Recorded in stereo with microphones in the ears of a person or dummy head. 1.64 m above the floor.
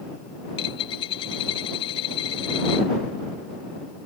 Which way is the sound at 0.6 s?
30° left (ahead or behind).